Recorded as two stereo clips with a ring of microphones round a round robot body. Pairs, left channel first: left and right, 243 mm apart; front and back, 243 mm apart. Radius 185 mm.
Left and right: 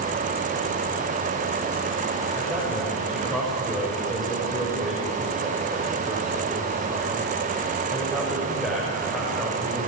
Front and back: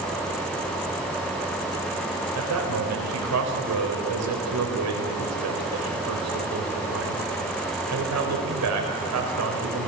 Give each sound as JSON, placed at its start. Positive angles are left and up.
{"t": 2.4, "sound": "a man speaking", "azimuth_deg": 180, "distance_m": 4.5}